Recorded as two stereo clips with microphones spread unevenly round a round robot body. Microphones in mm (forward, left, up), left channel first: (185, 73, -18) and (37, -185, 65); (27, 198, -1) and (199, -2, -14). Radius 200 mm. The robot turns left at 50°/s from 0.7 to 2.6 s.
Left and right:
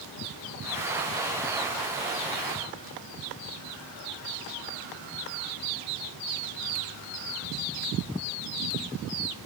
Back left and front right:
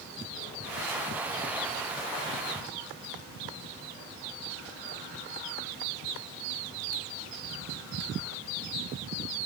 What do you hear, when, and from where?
Only background noise.